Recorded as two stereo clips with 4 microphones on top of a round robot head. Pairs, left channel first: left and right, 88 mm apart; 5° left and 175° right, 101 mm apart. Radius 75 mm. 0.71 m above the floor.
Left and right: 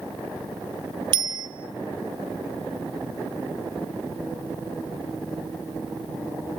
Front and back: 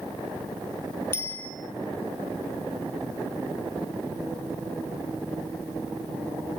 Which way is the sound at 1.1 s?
65° right.